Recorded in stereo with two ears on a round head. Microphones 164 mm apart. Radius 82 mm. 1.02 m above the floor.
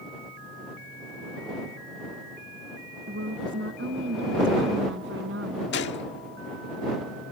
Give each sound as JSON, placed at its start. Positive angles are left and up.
{"t": 3.1, "sound": "a woman speaking", "side_deg": -70}
{"t": 5.7, "sound": "a gunshot", "side_deg": 70}